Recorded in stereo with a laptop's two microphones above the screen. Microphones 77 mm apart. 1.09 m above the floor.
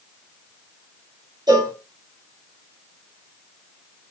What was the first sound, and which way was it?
A cowbell, 65° right (ahead or behind).